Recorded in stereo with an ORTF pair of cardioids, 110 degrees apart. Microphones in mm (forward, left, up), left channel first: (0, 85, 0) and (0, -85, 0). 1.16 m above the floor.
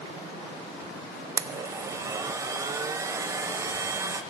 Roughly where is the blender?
Ahead.